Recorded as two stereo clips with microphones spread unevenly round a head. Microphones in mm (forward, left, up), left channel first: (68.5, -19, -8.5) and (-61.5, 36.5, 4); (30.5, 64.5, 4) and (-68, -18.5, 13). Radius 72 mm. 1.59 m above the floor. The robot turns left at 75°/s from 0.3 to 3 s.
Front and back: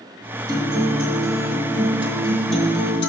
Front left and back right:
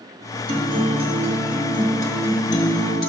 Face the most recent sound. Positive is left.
turn(degrees=30)